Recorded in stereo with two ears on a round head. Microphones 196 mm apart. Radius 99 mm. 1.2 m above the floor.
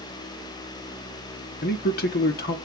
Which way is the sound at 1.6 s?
45° left (ahead or behind).